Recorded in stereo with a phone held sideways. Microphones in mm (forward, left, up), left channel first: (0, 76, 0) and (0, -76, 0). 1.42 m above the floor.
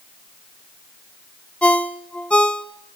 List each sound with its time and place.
1.6 s a ringtone: 5° left (ahead or behind), 0.7 m